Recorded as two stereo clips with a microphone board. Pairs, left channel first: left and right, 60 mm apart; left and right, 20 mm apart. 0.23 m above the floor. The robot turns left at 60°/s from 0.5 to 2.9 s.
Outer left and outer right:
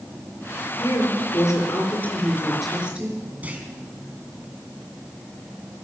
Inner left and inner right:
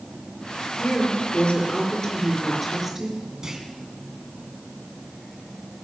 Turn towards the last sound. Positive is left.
turn(degrees=-25)  # may be behind; listen again after turning